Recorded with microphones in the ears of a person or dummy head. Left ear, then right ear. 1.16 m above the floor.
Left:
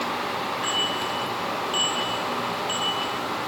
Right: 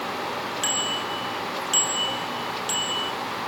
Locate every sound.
0.6 s a bicycle bell: 65° right (ahead or behind), 5.5 m; by 3.1 s 90° right, 5.5 m